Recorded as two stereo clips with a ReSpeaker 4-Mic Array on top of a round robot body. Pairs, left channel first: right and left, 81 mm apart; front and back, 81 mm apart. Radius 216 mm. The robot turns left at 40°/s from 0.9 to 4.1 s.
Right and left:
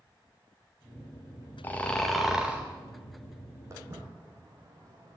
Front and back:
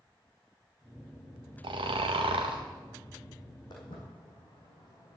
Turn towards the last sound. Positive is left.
turn(degrees=40)